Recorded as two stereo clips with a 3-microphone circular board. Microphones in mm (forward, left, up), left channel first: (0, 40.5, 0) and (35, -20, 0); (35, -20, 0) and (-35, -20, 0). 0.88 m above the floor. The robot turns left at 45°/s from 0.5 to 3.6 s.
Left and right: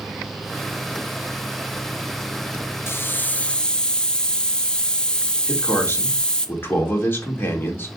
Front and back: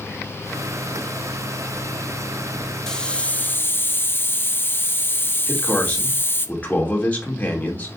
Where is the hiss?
80° left, 0.8 m; by 6.5 s 45° left, 0.8 m.